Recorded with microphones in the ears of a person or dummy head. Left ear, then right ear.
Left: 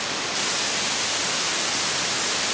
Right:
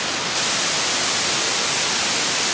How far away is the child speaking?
I don't hear a child speaking.